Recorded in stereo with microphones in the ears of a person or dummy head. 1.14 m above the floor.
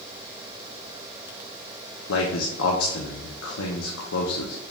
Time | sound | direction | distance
2.1 | a man speaking | 85° left | 0.6 m